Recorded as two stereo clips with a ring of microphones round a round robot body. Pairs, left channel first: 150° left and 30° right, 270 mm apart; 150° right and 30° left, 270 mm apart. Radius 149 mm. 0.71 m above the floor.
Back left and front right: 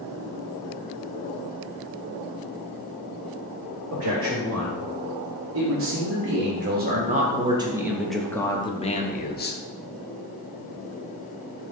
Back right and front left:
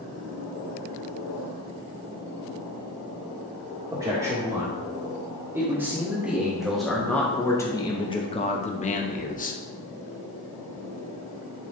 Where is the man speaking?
45° right, 2.5 m; by 9.6 s 170° left, 1.3 m.